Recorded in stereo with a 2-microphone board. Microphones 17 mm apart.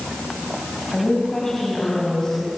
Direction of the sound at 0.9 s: 30° left (ahead or behind).